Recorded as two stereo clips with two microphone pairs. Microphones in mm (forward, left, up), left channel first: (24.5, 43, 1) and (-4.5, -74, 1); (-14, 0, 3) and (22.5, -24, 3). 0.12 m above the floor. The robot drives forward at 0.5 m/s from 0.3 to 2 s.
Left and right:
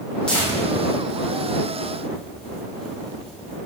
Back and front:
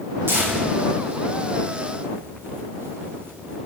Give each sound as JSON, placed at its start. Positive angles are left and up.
{"t": 0.3, "sound": "tearing paper", "azimuth_deg": -5, "distance_m": 2.0}